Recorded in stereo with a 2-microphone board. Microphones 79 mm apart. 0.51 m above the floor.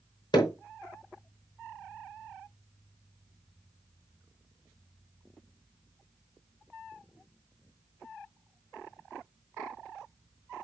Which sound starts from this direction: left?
Hammering, at 0.3 s.